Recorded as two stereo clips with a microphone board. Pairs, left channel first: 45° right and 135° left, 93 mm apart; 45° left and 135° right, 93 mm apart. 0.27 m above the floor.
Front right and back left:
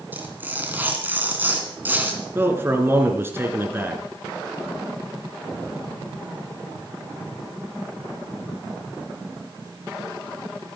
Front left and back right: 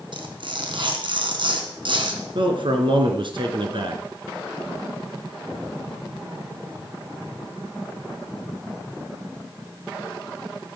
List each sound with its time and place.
0.1 s tearing paper: 155° right, 2.5 m
2.4 s a man speaking: 160° right, 3 m